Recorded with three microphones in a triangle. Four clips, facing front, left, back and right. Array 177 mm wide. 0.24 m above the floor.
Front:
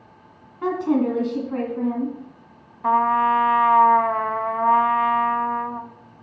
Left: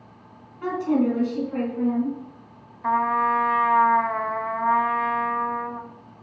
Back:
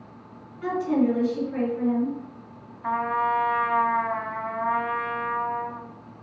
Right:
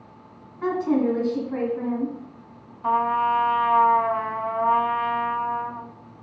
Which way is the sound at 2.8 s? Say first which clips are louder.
Even, front 7 dB; 15° left.